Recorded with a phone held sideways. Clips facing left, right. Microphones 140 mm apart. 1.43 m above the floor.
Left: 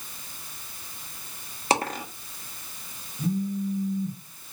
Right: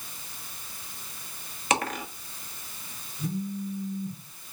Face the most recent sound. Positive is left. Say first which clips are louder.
# left 5 dB
turn(degrees=85)